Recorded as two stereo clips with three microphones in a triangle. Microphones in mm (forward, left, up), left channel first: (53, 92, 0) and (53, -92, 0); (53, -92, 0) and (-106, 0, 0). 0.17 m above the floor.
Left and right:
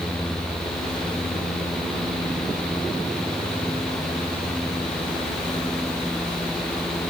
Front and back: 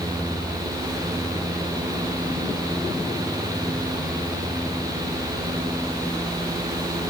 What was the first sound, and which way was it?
Only background noise.